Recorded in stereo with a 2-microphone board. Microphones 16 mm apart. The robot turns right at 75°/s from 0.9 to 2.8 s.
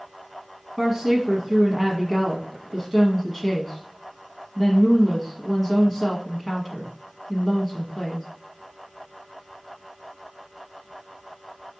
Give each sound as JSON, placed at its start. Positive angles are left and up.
{"t": 0.8, "sound": "a woman speaking", "azimuth_deg": -160, "distance_m": 1.1}